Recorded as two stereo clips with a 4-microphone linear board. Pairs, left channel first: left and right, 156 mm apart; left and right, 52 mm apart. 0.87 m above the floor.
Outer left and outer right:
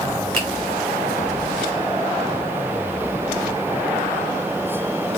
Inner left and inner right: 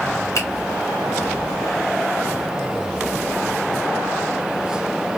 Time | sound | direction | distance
0.3 | a finger snap | 60° left (ahead or behind) | 1.3 m